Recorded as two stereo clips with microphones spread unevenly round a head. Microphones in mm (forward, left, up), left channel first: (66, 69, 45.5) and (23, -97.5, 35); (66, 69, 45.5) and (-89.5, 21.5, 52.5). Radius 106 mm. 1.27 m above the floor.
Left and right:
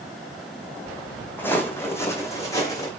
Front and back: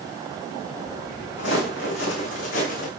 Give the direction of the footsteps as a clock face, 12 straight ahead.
12 o'clock.